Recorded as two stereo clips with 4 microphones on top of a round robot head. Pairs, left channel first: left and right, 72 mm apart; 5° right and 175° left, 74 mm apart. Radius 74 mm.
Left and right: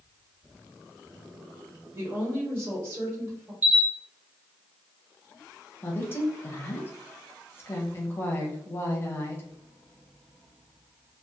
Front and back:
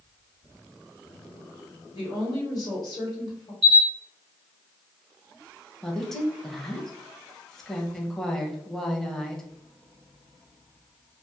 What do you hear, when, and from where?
1.9 s a woman speaking: 35° right, 1.4 m
3.6 s a camera shutter: 155° right, 0.7 m
5.8 s a woman speaking: 75° left, 0.8 m